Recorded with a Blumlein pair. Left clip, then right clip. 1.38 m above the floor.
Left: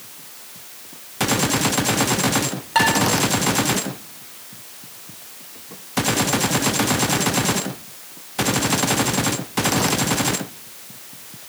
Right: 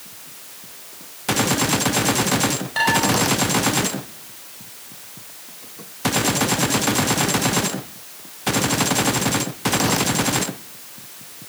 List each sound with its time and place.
2.8 s dishes clattering: 40° left, 4 m